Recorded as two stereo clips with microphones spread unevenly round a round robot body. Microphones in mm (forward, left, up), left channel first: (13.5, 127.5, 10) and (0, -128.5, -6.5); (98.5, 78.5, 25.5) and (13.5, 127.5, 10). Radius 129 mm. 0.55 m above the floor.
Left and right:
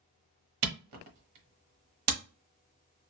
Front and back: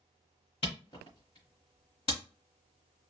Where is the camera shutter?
95° right, 1.0 m.